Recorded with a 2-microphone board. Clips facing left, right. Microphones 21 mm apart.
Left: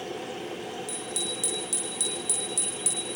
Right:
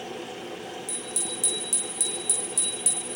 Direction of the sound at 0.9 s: 15° left (ahead or behind).